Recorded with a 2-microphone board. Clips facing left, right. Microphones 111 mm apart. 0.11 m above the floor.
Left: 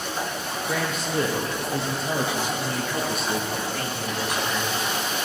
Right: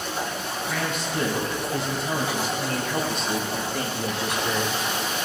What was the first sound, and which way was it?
A man speaking, 40° left (ahead or behind).